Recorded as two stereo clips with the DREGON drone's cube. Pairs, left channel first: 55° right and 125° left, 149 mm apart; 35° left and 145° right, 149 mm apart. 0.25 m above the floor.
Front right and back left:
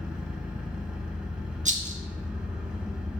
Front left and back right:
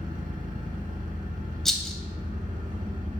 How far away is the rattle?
About 0.5 m.